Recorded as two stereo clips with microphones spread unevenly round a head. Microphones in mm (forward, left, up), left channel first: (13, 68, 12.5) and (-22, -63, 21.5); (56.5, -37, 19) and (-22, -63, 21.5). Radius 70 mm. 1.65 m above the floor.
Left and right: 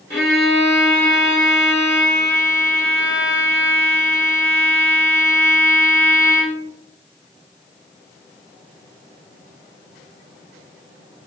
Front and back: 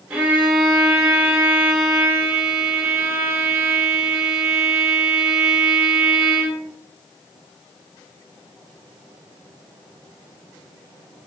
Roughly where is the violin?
Behind left.